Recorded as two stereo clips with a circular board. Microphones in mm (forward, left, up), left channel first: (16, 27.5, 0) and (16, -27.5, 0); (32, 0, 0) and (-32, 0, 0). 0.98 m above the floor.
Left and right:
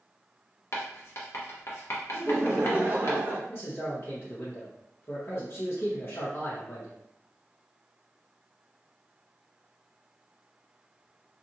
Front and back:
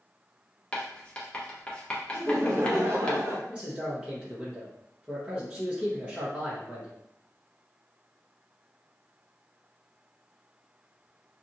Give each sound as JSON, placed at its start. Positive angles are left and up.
{"t": 0.7, "sound": "writing", "azimuth_deg": 70, "distance_m": 0.7}
{"t": 2.1, "sound": "laughter", "azimuth_deg": -140, "distance_m": 0.9}
{"t": 3.5, "sound": "a man speaking", "azimuth_deg": 115, "distance_m": 0.8}